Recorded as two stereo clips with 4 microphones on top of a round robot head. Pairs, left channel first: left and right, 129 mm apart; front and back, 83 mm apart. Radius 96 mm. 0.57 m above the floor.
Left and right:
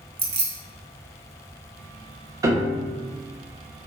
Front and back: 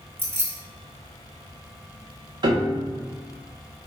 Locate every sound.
0.2 s keys jangling: 120° right, 0.9 m
2.4 s a piano: 155° right, 0.6 m